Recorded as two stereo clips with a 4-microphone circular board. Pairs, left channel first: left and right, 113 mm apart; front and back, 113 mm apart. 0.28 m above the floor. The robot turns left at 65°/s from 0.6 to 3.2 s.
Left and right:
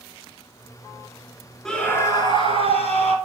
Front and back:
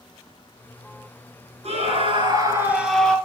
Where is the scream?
175° left, 4 m; by 3.1 s 75° left, 4 m.